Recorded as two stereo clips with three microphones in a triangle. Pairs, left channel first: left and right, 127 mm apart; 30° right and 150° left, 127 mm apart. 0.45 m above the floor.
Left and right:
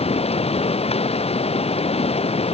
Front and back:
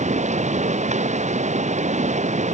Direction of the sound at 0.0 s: 130° left.